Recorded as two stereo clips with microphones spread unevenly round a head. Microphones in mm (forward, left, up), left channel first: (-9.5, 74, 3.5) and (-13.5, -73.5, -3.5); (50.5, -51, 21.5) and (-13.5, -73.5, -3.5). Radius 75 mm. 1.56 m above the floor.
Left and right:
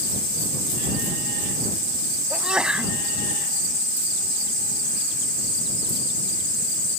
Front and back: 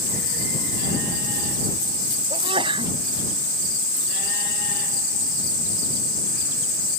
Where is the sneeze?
175° right.